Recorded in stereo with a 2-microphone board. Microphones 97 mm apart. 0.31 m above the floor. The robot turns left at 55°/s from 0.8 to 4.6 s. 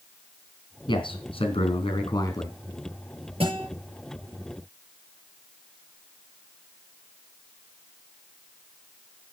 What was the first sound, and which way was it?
A man speaking, 120° left.